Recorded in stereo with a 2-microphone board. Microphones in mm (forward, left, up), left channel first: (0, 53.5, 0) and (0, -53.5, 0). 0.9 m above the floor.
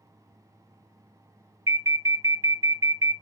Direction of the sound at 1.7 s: 25° right (ahead or behind).